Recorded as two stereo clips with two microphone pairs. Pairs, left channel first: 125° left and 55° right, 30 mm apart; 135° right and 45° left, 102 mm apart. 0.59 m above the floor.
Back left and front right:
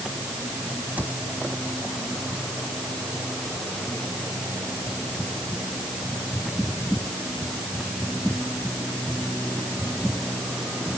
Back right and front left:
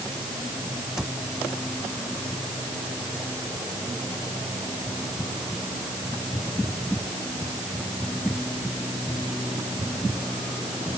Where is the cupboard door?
40° right.